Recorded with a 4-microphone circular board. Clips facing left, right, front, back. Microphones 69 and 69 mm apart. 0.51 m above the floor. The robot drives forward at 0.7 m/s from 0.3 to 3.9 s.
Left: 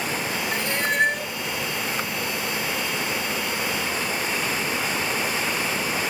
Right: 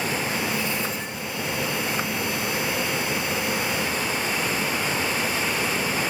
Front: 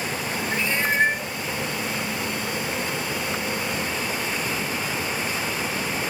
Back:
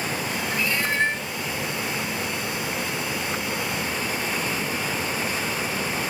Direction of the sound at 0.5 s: 65° left.